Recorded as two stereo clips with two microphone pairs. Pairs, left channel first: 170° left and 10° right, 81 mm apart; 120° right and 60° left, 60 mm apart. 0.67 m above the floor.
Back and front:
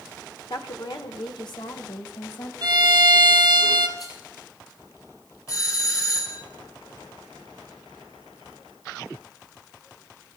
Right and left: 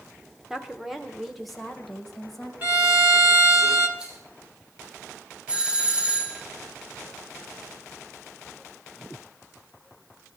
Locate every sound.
0.5 s a woman speaking: 145° left, 1.5 m; by 2.5 s 155° left, 3 m
2.6 s a violin: 10° left, 1.9 m
4.0 s a rattle: 135° left, 8 m
5.5 s a doorbell: 130° left, 2.5 m